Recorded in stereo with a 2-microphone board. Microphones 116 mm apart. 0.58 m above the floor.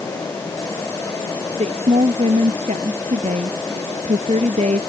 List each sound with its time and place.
1.5 s a woman speaking: 75° right (ahead or behind)